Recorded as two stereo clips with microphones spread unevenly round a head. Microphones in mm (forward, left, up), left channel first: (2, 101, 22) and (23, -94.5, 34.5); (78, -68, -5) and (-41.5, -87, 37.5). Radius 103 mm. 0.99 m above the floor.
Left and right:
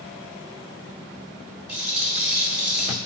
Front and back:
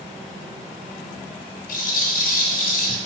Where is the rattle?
Straight ahead, 0.9 m.